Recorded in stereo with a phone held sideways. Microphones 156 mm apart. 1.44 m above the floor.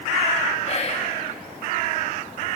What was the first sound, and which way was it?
Whispering, 45° left (ahead or behind).